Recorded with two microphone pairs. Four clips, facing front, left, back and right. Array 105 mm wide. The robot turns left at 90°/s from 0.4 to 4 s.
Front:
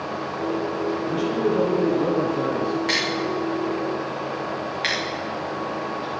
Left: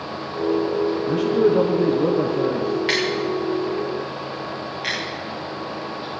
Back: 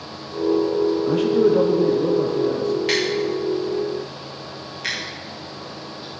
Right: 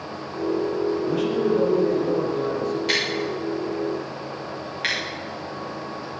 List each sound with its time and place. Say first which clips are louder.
1.1 s a man speaking: left 7 dB, back 6 dB; 170° right, 3.5 m; by 2.8 s 35° left, 3.5 m
2.9 s scissors: left 4 dB, back 3 dB; 75° left, 8 m; by 5.0 s 25° right, 8 m